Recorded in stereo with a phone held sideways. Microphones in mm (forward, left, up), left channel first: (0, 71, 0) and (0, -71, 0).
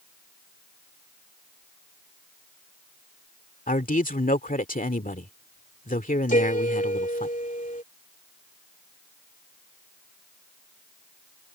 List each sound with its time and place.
3.7 s a man speaking: 75° left (ahead or behind)
6.3 s a piano: 70° left (ahead or behind)